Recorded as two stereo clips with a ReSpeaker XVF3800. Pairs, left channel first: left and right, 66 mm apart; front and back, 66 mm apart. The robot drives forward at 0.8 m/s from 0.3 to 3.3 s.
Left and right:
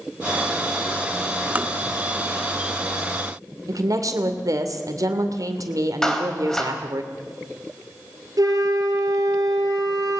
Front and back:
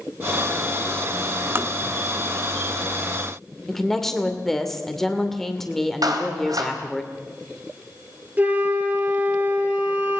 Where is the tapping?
145° right, 1.1 m; by 1.7 s 150° right, 1.2 m.